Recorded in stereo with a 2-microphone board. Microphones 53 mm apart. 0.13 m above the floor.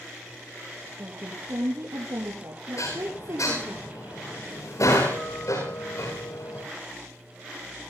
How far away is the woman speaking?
About 6 m.